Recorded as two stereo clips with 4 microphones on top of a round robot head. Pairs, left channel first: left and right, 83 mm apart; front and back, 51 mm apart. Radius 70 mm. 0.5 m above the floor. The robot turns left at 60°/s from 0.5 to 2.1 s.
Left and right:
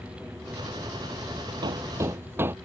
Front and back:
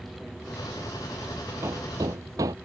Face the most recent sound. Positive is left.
turn(degrees=-155)